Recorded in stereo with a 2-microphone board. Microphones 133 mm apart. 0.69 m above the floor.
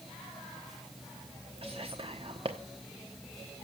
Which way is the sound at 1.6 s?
45° right (ahead or behind).